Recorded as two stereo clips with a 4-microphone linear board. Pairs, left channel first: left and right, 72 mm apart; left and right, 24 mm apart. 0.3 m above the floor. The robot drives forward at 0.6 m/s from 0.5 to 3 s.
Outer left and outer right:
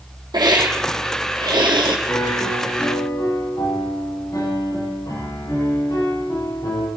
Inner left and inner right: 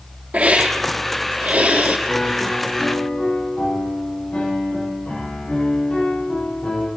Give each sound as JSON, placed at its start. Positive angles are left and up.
{"t": 0.3, "sound": "a hiss", "side_deg": -75, "distance_m": 3.5}
{"t": 2.1, "sound": "a piano", "side_deg": 55, "distance_m": 9.0}